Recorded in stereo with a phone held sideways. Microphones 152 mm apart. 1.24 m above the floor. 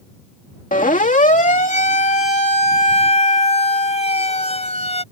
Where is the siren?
60° left (ahead or behind); by 5.0 s 45° left (ahead or behind).